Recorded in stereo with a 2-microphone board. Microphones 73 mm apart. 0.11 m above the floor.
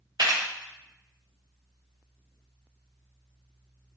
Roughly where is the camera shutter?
Right.